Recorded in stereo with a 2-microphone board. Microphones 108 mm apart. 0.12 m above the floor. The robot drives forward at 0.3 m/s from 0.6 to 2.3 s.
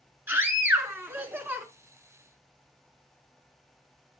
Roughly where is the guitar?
No guitar in this recording.